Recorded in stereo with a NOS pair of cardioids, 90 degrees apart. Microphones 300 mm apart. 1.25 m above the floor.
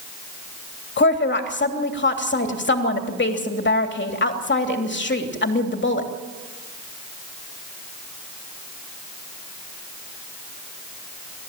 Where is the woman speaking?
40° left, 3 m.